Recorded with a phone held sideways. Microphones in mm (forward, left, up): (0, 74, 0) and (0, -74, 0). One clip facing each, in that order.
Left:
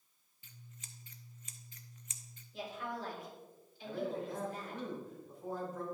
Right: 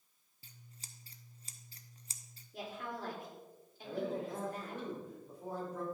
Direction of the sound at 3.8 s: 85° right.